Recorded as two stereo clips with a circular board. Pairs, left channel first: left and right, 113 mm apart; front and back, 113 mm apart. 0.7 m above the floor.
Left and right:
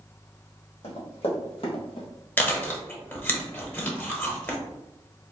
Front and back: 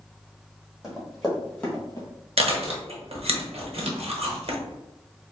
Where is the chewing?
160° left, 0.8 m.